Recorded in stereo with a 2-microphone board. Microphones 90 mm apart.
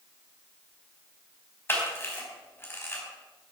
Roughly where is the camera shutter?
Left.